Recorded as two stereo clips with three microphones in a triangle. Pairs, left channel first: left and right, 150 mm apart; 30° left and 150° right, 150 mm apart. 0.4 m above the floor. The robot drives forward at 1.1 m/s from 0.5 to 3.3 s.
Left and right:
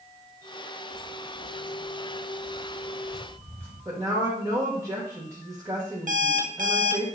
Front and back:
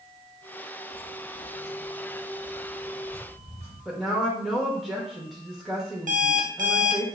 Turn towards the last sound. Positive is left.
turn(degrees=-120)